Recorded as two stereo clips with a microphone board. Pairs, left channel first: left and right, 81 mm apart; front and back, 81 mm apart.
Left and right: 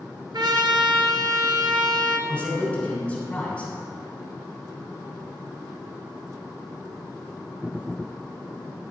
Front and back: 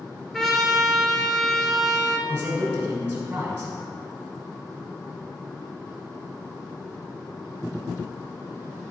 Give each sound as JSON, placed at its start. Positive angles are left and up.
{"t": 0.3, "sound": "a trumpet", "azimuth_deg": -85, "distance_m": 0.8}
{"t": 2.3, "sound": "a man speaking", "azimuth_deg": 140, "distance_m": 1.2}